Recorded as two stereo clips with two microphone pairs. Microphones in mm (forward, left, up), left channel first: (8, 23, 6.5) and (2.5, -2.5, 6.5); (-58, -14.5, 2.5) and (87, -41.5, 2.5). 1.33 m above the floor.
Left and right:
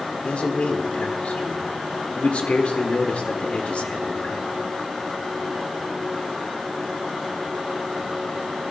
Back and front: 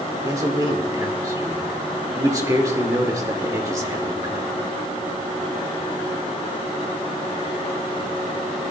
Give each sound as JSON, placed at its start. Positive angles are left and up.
{"t": 0.2, "sound": "a man speaking", "azimuth_deg": 55, "distance_m": 1.9}